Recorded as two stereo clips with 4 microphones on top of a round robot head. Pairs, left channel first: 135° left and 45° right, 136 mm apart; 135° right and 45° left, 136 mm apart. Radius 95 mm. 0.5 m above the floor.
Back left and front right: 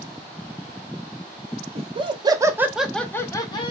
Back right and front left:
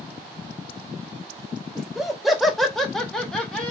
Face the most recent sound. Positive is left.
turn(degrees=145)